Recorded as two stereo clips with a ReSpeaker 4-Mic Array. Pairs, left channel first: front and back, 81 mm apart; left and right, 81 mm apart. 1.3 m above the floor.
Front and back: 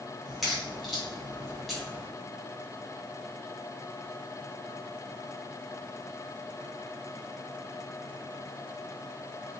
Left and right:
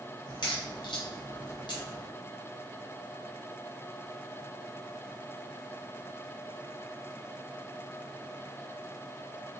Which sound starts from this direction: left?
A crack, at 0.3 s.